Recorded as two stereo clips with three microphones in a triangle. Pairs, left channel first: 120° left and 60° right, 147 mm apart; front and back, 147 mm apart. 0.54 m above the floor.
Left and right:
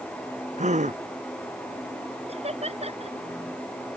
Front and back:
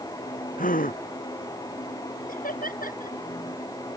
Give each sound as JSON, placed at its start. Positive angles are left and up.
{"t": 0.6, "sound": "a gasp", "azimuth_deg": -25}
{"t": 2.3, "sound": "laughter", "azimuth_deg": -15}